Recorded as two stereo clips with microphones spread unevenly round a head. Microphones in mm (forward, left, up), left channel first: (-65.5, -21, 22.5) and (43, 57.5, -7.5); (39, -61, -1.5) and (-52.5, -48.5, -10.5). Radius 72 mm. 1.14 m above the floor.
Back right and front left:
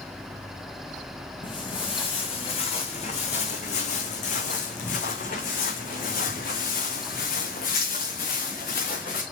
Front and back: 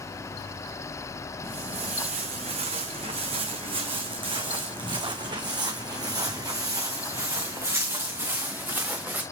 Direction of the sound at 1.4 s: 170° left.